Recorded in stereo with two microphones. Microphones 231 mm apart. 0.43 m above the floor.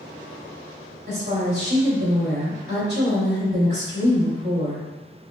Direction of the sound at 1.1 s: 45° right (ahead or behind).